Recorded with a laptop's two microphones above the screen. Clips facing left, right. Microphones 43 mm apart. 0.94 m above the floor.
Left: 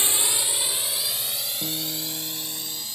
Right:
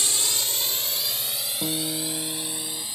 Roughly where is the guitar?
Right.